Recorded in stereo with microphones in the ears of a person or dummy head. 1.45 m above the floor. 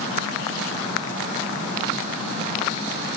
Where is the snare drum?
I don't hear a snare drum.